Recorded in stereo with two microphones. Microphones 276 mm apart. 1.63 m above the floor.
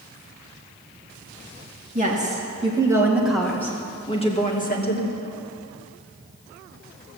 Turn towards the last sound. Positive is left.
turn(degrees=35)  # may be behind; listen again after turning